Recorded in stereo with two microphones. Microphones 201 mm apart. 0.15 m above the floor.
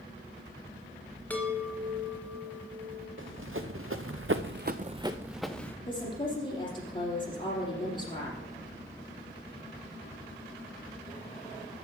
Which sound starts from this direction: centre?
A chime, at 1.3 s.